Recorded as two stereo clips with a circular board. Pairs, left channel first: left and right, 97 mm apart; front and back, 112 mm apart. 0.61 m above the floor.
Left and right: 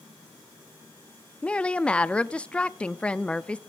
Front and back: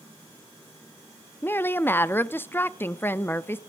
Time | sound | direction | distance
1.4 | a woman speaking | 30° left | 0.5 m